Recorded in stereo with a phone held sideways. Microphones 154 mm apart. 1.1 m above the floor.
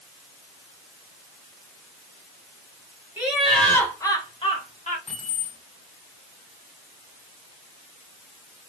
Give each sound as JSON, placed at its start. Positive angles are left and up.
{"t": 3.2, "sound": "laughter", "side_deg": -10, "distance_m": 1.7}
{"t": 5.1, "sound": "keys jangling", "side_deg": 45, "distance_m": 2.5}